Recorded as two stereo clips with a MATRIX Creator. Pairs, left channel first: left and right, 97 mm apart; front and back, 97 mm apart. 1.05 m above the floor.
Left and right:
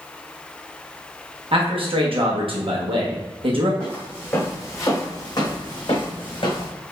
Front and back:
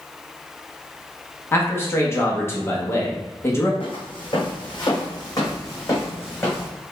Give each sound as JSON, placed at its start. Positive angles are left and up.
{"t": 1.5, "sound": "a man speaking", "azimuth_deg": -65, "distance_m": 1.2}
{"t": 3.8, "sound": "footsteps", "azimuth_deg": 15, "distance_m": 2.5}